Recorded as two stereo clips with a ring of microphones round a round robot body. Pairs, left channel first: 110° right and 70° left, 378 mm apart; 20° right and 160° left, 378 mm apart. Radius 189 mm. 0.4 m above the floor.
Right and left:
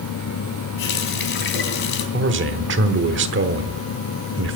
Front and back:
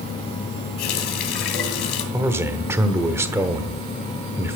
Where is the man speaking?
80° left, 1.1 m.